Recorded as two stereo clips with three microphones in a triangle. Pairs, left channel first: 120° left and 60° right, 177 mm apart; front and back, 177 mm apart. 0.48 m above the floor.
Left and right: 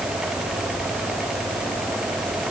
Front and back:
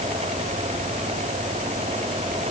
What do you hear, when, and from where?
Only background noise.